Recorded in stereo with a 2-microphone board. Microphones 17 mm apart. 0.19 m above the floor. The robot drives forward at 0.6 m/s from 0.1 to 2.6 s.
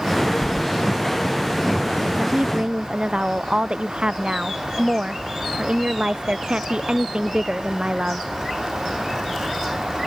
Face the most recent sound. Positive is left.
turn(degrees=-85)